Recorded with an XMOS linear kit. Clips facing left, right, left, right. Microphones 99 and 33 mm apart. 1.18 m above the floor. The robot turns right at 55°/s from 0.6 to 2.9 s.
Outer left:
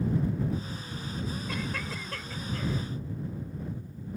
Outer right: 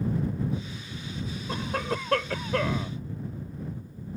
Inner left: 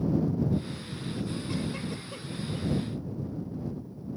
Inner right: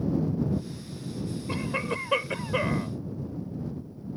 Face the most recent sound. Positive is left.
turn(degrees=-70)